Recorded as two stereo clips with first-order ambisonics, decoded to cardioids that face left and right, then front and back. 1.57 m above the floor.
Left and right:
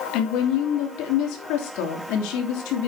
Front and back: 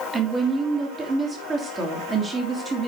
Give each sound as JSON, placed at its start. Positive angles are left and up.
{"t": 0.1, "sound": "a woman speaking", "azimuth_deg": 110, "distance_m": 3.0}